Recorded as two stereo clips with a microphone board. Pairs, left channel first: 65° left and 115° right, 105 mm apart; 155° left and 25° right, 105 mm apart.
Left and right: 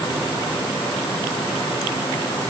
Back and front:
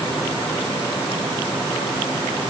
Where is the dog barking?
No dog barking in this recording.